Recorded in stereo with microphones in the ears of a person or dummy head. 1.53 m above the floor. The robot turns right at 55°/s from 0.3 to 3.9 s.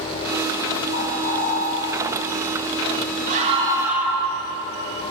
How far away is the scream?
About 1.9 m.